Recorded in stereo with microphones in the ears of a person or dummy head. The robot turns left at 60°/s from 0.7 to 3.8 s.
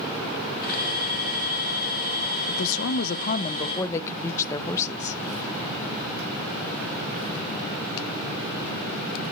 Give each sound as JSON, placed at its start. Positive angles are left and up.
{"t": 2.5, "sound": "a woman speaking", "azimuth_deg": 105, "distance_m": 0.7}